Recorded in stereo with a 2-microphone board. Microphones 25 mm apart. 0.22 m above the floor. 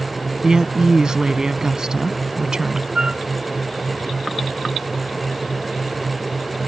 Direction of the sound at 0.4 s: 30° right (ahead or behind).